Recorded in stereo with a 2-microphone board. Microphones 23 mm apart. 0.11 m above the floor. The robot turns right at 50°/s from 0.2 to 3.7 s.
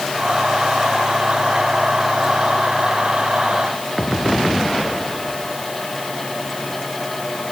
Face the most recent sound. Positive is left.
No sound to turn to.